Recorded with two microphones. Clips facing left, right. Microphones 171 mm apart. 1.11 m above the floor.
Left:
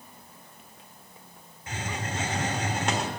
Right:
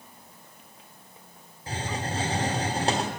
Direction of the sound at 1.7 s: 35° right (ahead or behind).